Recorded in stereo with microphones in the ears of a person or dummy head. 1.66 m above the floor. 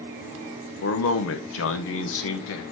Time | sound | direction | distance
0.8 | a man speaking | 70° left (ahead or behind) | 1.3 m